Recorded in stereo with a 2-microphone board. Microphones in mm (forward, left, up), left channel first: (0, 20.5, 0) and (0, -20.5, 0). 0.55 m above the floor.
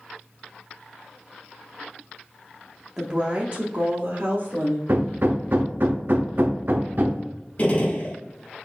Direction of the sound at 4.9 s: 55° right (ahead or behind).